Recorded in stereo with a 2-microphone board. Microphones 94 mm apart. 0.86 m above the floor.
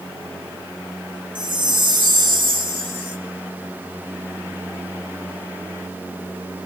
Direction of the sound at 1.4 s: 55° right (ahead or behind).